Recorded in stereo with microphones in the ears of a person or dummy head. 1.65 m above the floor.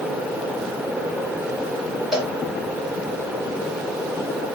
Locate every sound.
2.1 s a cowbell: 5° left (ahead or behind), 2.5 m